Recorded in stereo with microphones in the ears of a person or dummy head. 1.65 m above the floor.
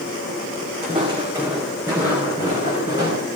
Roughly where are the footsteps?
Right.